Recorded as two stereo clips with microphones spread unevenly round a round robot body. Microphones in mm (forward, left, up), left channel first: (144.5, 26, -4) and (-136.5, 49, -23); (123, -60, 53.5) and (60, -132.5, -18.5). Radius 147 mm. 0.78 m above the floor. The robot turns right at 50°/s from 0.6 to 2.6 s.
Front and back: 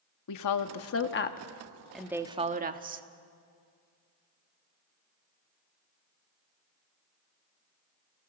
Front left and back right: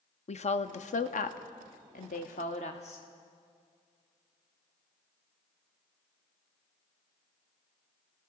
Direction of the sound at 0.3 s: 20° left.